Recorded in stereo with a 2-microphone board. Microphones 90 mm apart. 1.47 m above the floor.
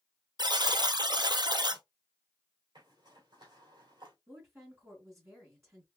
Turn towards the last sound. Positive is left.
turn(degrees=-30)  # may be behind; listen again after turning